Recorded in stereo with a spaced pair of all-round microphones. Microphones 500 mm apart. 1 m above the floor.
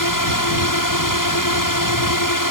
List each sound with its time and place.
0.0 s a drone: 35° left (ahead or behind)